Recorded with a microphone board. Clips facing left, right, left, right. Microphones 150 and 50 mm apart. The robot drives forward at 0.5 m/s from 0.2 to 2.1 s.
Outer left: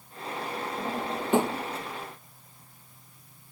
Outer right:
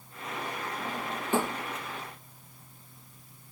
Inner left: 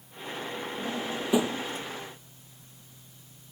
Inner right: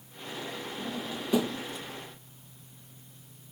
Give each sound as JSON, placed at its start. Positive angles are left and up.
{"t": 0.8, "sound": "a drawer", "side_deg": 20}